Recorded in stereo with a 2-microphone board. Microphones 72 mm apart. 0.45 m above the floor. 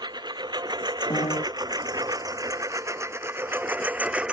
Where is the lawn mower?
85° right; by 4.3 s 15° right (ahead or behind).